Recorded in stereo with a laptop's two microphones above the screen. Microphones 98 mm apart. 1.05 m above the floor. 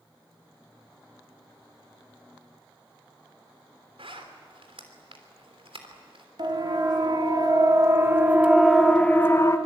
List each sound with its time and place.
4.0 s a zipper: 80° right, 3 m
6.4 s a siren: 55° right (ahead or behind), 2.5 m; by 9.6 s 35° left (ahead or behind), 1.4 m